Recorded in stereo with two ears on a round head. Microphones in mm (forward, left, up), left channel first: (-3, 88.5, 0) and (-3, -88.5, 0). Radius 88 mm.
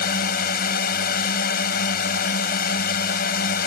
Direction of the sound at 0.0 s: 45° left (ahead or behind).